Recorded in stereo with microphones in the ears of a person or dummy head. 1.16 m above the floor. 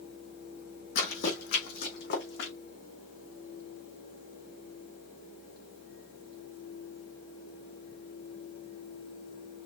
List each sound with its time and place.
0.9 s running footsteps: 45° left (ahead or behind), 2.5 m; by 2.5 s 60° left (ahead or behind), 3.5 m